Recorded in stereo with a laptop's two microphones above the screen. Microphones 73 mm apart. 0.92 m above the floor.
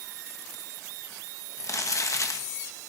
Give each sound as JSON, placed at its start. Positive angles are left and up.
{"t": 1.6, "sound": "crumpling", "side_deg": 50, "distance_m": 1.3}